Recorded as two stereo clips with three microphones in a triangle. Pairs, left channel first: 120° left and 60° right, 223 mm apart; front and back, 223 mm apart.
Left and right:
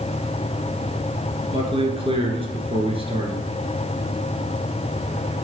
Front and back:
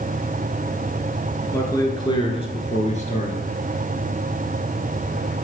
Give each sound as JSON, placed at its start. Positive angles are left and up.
{"t": 1.5, "sound": "a man speaking", "azimuth_deg": -60, "distance_m": 1.7}